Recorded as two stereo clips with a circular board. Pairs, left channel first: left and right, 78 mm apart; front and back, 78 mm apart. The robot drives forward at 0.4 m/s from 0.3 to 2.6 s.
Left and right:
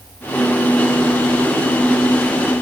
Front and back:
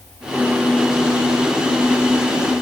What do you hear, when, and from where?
Only background noise.